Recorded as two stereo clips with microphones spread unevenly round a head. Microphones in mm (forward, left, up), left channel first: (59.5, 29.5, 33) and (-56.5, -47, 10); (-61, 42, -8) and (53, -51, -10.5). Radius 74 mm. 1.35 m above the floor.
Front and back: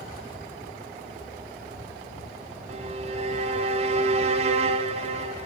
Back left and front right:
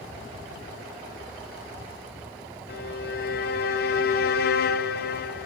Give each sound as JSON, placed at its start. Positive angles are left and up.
{"t": 2.7, "sound": "a violin", "azimuth_deg": 165, "distance_m": 0.5}